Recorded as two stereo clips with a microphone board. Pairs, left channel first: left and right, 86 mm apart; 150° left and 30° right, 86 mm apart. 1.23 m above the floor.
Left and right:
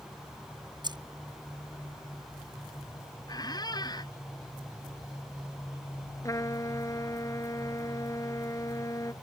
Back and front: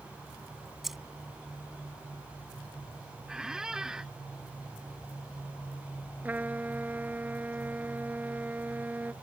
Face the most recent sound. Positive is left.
turn(degrees=40)